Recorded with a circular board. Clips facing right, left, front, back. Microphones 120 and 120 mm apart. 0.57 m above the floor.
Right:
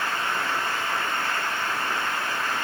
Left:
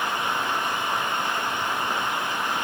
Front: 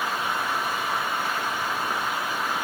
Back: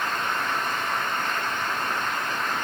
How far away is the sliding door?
No sliding door in this recording.